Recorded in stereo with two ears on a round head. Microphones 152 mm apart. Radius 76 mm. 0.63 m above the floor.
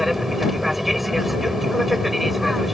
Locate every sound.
0.0 s an aircraft: centre (ahead or behind)